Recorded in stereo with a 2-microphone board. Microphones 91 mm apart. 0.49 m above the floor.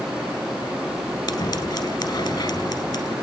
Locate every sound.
1.3 s scissors: 40° left (ahead or behind), 5 m